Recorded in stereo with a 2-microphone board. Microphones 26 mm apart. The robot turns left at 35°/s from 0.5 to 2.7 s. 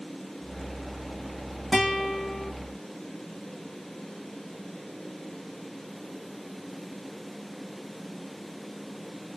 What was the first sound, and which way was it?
A guitar, centre (ahead or behind).